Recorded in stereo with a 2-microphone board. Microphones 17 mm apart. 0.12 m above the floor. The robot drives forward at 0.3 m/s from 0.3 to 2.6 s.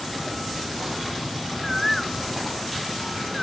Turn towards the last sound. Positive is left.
turn(degrees=10)  # may be behind; listen again after turning